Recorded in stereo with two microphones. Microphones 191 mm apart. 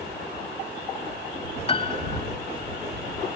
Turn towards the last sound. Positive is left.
turn(degrees=30)  # may be behind; listen again after turning